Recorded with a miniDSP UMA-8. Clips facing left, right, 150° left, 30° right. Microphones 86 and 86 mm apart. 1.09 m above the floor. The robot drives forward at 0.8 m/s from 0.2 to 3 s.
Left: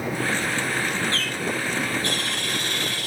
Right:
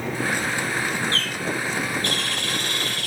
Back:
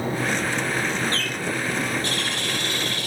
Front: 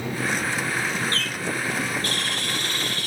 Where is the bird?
60° right, 5.5 m; by 3.1 s 75° right, 5 m.